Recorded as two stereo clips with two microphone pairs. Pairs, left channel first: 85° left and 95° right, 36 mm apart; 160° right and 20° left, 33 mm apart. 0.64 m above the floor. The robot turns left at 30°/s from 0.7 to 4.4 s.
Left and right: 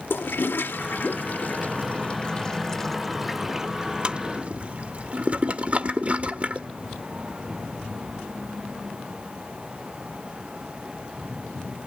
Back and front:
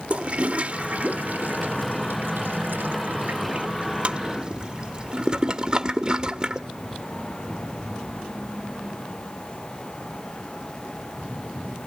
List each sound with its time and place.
0.1 s a toilet flushing: 65° left, 1.1 m; by 6.7 s 45° right, 1.1 m